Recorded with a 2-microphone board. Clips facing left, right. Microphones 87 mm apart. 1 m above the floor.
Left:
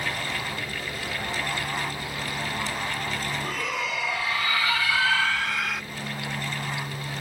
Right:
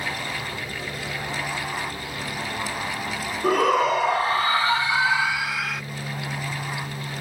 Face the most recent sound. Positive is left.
turn(degrees=0)  # may be behind; listen again after turning